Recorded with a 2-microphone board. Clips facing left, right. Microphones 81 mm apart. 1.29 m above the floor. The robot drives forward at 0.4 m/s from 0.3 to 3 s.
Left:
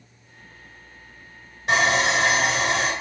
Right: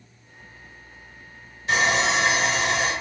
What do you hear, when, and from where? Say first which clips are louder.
1.7 s sawing: left 1 dB; 55° left (ahead or behind), 1.6 m